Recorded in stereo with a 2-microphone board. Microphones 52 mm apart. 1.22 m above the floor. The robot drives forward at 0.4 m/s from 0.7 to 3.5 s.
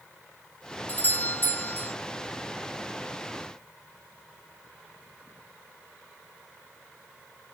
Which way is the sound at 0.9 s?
35° left (ahead or behind).